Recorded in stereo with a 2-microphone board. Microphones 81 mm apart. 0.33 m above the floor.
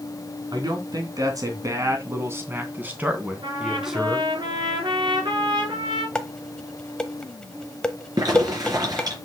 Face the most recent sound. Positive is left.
turn(degrees=-55)  # may be behind; listen again after turning